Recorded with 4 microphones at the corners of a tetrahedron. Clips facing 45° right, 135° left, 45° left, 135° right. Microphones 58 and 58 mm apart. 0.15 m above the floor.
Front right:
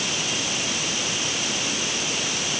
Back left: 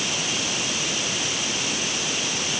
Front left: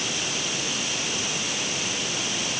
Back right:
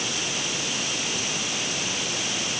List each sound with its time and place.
Only background noise.